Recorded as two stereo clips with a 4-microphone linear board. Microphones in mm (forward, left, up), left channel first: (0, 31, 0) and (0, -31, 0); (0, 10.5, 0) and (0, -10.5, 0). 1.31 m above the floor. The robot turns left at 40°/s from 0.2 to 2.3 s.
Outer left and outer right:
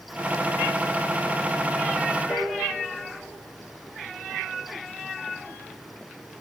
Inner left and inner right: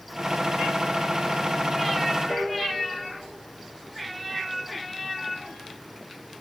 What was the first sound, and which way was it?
A piano, 10° right (ahead or behind).